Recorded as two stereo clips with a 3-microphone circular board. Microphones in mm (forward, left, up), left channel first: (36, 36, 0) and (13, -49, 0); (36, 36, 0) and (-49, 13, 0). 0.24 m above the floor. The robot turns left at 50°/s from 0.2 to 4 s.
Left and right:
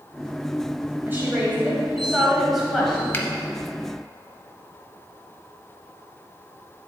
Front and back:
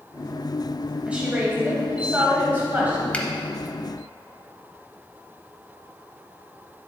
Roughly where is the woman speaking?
Behind right.